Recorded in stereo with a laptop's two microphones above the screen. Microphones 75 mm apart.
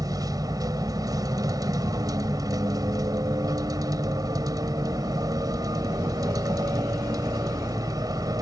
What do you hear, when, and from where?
0.0 s a vehicle: 60° right (ahead or behind)